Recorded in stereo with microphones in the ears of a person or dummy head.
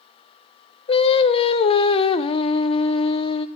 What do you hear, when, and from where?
0.9 s singing: 30° left (ahead or behind), 0.8 m